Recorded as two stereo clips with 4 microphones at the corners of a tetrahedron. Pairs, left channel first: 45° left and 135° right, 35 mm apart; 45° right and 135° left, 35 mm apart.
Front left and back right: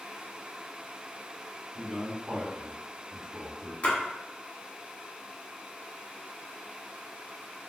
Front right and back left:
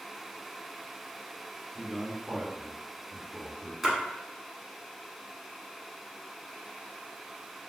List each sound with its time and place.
1.8 s a man speaking: straight behind, 1.0 m
3.8 s a splash: 50° left, 1.0 m